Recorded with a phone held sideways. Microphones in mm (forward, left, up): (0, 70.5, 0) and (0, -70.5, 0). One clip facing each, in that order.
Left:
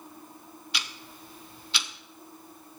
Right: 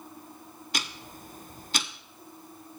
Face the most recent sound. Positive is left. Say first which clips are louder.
# right 4 dB
turn(degrees=-45)  # may be behind; listen again after turning